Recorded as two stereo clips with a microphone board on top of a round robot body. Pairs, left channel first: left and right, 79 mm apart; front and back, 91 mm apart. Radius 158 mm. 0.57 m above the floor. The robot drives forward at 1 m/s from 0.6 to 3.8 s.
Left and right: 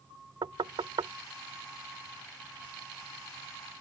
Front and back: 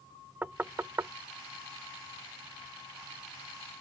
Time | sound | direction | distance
0.4 | knocking | 110° right | ?